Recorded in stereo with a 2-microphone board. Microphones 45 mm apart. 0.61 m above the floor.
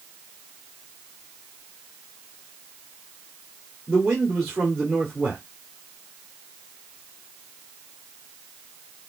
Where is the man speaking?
5° right (ahead or behind), 2.5 m.